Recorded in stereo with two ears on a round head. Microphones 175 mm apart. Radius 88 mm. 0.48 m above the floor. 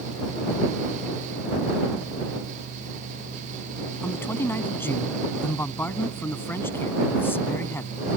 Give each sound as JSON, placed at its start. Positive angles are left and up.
{"t": 4.0, "sound": "a man speaking", "side_deg": 10}